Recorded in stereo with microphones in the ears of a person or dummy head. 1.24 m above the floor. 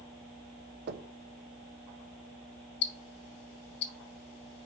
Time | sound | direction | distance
0.9 | knocking | 55° right (ahead or behind) | 1.1 m
2.8 | ticking | 60° left (ahead or behind) | 2.5 m